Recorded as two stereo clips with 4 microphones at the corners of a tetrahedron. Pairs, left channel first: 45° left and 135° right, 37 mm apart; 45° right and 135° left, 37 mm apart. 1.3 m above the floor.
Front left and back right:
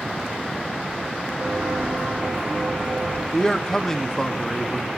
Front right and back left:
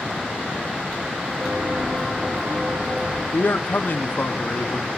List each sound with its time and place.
1.4 s footsteps: 175° right, 6.5 m
3.3 s a man speaking: 30° right, 0.5 m